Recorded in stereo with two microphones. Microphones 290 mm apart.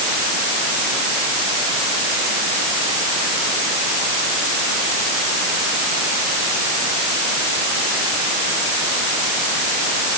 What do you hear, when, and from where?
Only background noise.